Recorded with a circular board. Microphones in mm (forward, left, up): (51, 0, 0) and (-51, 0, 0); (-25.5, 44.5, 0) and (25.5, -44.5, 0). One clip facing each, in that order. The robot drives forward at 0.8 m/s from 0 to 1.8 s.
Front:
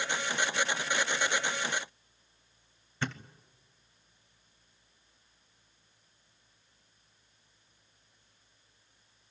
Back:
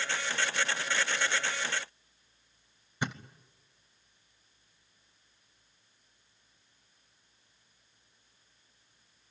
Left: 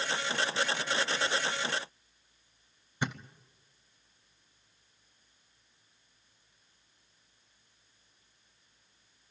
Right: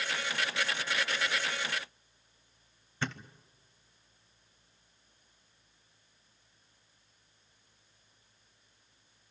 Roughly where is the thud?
Behind left.